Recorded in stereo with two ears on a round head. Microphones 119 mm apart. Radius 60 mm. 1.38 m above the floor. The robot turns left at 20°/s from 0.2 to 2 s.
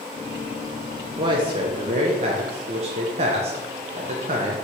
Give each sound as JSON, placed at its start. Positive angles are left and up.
{"t": 1.2, "sound": "a man speaking", "side_deg": -30, "distance_m": 0.5}